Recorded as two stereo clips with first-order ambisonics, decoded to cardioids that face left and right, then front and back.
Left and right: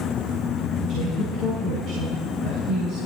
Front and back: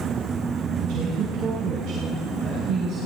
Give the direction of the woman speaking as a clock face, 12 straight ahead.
5 o'clock.